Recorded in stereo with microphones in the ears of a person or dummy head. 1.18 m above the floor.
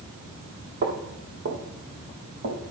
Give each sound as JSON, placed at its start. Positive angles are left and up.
{"t": 0.8, "sound": "footsteps", "side_deg": -45, "distance_m": 1.7}